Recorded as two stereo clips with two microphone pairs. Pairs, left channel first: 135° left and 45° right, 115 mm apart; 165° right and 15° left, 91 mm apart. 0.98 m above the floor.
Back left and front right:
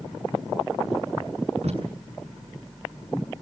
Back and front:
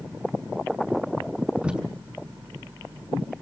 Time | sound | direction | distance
1.6 | tape being pulled | 65° right | 6.5 m